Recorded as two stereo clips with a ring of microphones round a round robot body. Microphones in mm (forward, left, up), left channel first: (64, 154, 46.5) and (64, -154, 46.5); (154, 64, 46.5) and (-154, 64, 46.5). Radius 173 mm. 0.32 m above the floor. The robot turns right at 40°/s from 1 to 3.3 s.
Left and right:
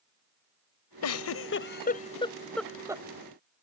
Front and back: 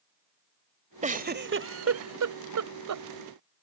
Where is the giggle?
115° left; by 3.0 s 165° right.